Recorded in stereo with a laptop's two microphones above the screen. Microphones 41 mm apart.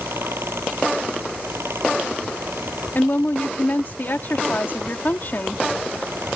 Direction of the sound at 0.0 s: 85° right.